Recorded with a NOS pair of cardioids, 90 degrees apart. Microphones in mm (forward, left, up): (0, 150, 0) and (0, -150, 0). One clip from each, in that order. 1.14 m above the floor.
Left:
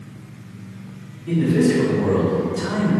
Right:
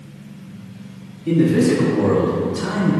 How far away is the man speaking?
About 1.0 m.